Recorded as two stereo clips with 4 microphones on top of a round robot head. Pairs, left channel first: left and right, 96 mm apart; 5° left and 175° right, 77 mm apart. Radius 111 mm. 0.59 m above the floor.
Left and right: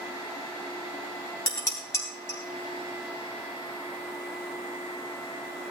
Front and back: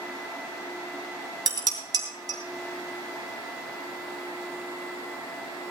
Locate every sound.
1.5 s dishes clattering: 150° left, 3 m